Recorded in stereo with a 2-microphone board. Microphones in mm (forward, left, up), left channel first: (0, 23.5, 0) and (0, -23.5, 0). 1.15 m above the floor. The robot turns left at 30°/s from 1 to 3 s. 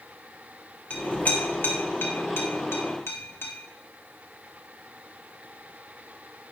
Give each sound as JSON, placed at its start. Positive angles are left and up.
{"t": 0.9, "sound": "a clink", "side_deg": 30, "distance_m": 0.7}